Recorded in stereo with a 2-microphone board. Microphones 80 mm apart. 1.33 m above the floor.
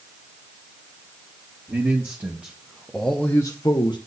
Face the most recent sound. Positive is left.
turn(degrees=70)  # may be behind; listen again after turning